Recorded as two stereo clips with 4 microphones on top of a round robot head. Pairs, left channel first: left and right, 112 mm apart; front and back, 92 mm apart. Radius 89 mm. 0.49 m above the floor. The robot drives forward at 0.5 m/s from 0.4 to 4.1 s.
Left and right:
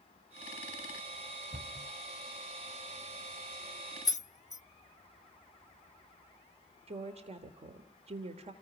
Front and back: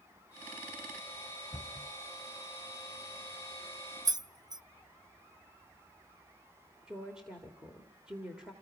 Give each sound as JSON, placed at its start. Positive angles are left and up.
{"t": 1.5, "sound": "a cupboard door", "azimuth_deg": -70, "distance_m": 1.7}
{"t": 4.0, "sound": "keys jangling", "azimuth_deg": 140, "distance_m": 0.6}
{"t": 6.9, "sound": "a woman speaking", "azimuth_deg": -100, "distance_m": 1.5}